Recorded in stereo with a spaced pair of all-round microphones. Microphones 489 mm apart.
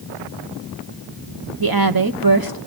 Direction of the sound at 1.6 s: 45° right (ahead or behind).